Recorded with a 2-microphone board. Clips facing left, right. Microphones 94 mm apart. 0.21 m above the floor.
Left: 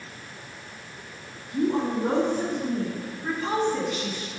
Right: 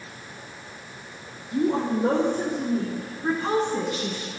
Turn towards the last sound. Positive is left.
turn(degrees=-25)  # may be behind; listen again after turning